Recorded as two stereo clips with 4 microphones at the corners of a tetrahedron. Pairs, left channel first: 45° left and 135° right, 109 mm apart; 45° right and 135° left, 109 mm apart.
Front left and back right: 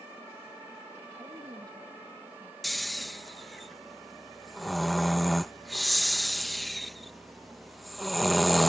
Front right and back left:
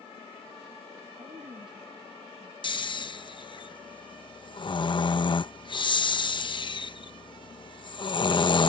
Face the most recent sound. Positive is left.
turn(degrees=-45)